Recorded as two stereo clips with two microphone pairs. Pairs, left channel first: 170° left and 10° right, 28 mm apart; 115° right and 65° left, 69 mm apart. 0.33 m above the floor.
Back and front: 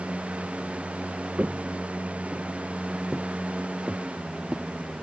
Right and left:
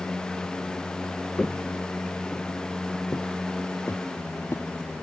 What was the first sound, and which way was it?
Footsteps, 35° right.